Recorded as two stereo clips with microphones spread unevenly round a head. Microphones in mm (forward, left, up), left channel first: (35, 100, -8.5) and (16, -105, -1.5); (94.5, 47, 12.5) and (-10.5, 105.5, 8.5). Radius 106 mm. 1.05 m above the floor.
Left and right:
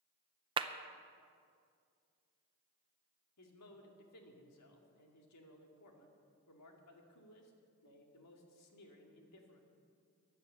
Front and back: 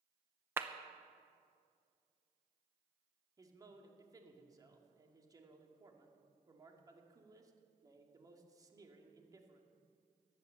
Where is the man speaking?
90° left, 2 m.